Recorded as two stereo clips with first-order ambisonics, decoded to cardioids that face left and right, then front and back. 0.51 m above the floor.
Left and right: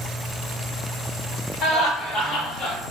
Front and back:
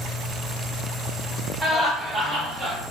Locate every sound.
1.6 s laughter: 125° left, 1.8 m; by 2.8 s 155° left, 1.8 m